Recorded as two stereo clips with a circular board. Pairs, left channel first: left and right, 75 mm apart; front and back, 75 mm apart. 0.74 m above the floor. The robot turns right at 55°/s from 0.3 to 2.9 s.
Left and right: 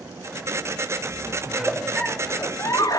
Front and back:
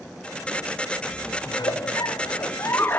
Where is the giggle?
20° right, 0.7 m; by 3.0 s 60° left, 0.7 m.